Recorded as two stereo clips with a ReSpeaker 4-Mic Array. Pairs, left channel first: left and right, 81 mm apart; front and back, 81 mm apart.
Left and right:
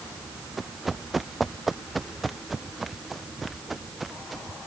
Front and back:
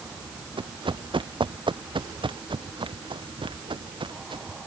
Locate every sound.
0.6 s running footsteps: straight behind